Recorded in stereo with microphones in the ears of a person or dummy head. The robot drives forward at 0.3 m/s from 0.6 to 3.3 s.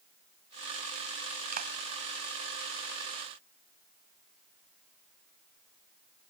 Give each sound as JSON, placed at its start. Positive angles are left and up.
{"t": 1.5, "sound": "a clap", "side_deg": -45}